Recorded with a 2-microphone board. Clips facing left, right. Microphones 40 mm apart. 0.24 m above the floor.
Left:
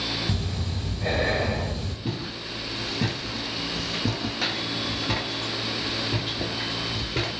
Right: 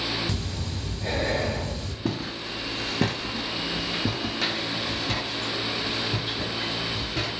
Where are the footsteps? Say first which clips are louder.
Right 5 dB; 75° right (ahead or behind), 1.1 m; by 7.3 s 40° left (ahead or behind), 2 m.